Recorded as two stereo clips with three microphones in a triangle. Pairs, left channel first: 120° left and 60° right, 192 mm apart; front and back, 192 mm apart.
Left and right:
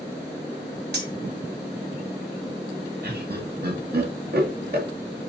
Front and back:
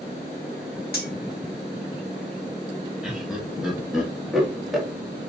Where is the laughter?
90° right, 1.9 m.